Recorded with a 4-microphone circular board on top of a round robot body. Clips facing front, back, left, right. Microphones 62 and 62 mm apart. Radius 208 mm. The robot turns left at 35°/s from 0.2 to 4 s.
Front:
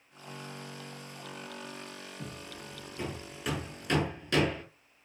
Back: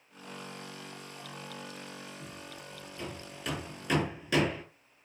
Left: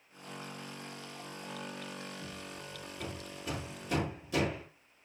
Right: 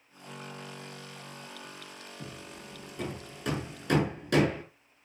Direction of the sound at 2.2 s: 35° right.